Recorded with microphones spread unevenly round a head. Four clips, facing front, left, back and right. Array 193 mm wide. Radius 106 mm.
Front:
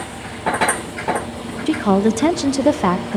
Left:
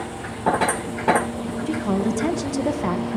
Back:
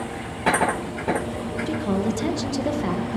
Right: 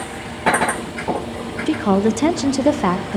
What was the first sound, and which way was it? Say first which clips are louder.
A woman speaking: right 7 dB, front 9 dB; 35° right.